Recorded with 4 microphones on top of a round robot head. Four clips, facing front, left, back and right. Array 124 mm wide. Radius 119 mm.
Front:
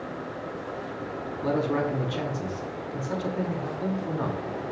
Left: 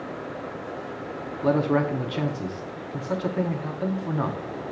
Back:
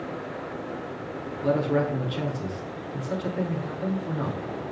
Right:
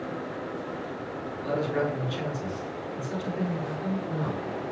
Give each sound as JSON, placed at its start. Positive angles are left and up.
{"t": 1.4, "sound": "a man speaking", "azimuth_deg": 75, "distance_m": 3.5}